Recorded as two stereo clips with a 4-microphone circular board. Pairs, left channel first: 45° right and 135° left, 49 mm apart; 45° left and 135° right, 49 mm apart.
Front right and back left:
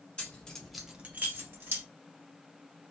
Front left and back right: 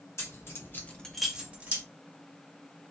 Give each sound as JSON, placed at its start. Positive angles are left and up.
{"t": 0.2, "sound": "keys jangling", "azimuth_deg": 20, "distance_m": 1.1}